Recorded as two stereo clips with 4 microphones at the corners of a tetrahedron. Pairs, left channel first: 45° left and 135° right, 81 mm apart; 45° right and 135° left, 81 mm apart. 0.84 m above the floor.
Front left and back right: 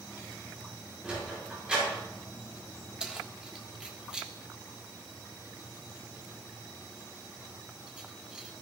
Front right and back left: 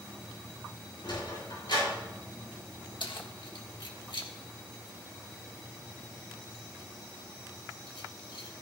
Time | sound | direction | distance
1.0 | a sliding door | 55° right | 5.5 m
3.0 | keys jangling | 55° right | 1.4 m